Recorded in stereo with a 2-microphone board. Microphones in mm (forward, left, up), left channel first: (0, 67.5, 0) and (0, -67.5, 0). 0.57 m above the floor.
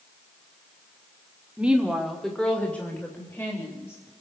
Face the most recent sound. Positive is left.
turn(degrees=20)  # may be behind; listen again after turning